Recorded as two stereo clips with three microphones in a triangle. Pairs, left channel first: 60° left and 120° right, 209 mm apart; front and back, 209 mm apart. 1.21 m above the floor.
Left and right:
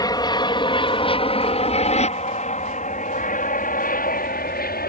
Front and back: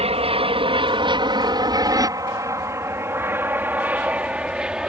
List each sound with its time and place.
0.0 s an aircraft: 125° left; by 4.9 s 95° left